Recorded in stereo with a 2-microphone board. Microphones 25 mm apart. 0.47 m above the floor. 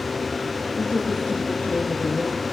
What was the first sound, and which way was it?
A woman speaking, 70° left (ahead or behind).